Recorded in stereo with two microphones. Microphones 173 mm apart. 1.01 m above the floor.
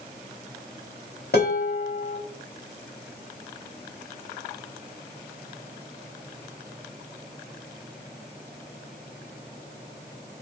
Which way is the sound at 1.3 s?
65° left (ahead or behind).